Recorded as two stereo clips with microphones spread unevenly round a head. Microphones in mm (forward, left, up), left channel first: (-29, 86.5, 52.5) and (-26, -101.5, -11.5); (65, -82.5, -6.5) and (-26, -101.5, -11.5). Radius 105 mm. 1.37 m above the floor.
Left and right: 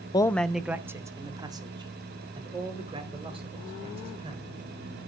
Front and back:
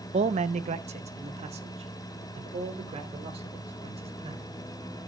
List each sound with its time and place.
0.1 s a man speaking: 155° left, 0.7 m; by 4.4 s 155° right, 5.5 m